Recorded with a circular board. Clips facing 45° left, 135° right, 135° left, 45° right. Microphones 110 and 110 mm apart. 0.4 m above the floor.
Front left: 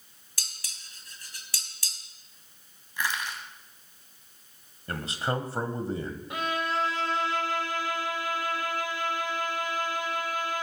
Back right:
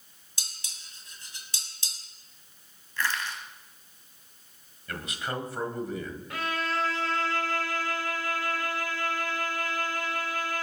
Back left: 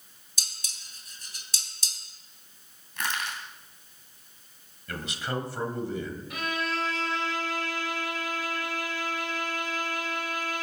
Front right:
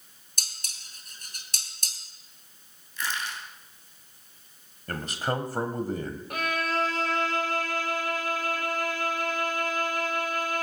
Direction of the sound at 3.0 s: 115° left.